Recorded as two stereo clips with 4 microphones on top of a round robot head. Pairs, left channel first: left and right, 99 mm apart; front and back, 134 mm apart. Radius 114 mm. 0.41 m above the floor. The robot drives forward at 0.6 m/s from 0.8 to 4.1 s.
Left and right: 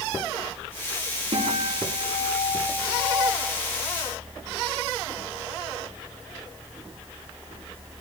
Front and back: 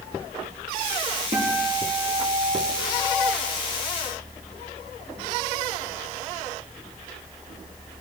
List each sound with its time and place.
1.3 s a guitar: 130° right, 7 m; by 3.3 s 135° right, 8 m